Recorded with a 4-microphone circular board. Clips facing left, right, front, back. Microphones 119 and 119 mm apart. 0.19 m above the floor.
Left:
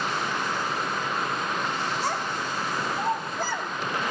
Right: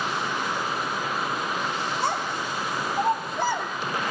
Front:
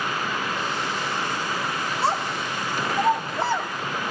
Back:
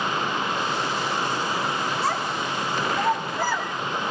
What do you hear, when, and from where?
2.0 s a child speaking: 60° right, 7 m; by 3.7 s 65° right, 5.5 m